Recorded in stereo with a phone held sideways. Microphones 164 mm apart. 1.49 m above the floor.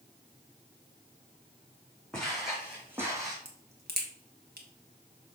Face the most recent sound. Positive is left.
turn(degrees=-75)  # may be behind; listen again after turning